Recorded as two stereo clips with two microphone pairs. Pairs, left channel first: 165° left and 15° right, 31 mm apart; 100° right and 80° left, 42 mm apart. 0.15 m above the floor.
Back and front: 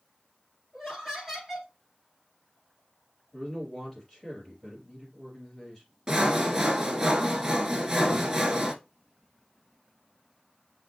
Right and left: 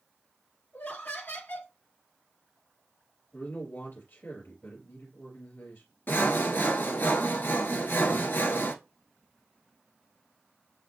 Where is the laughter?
90° right, 3.5 m.